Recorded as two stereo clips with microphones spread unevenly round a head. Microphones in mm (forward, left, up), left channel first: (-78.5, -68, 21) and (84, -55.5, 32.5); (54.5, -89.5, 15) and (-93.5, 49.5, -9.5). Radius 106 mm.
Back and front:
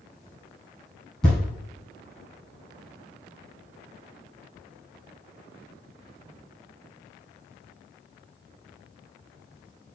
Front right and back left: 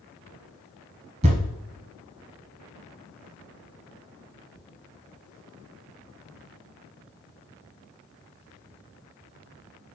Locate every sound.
1.2 s a thud: 90° left, 1.1 m